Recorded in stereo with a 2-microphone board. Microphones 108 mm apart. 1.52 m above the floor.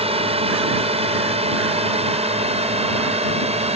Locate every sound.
0.0 s a drone: 65° right (ahead or behind); by 3.8 s 75° right (ahead or behind)